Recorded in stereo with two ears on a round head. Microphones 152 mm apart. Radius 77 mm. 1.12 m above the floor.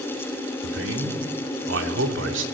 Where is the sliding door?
No sliding door in this recording.